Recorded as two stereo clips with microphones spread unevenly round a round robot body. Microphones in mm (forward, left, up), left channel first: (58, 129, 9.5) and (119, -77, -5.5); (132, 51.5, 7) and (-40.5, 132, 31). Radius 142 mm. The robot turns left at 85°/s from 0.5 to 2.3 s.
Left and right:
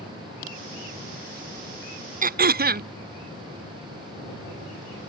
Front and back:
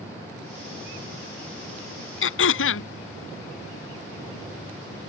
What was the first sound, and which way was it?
Throat clearing, 20° right.